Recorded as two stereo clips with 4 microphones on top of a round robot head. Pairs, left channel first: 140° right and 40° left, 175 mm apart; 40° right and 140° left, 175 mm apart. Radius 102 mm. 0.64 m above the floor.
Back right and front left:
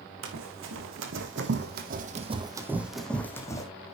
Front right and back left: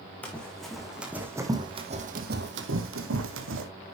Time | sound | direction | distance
0.2 | running footsteps | 40° left | 3 m